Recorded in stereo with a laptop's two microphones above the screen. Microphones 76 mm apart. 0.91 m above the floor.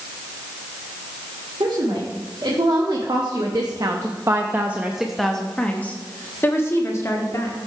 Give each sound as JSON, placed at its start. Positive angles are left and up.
{"t": 1.6, "sound": "a woman speaking", "side_deg": -85, "distance_m": 1.7}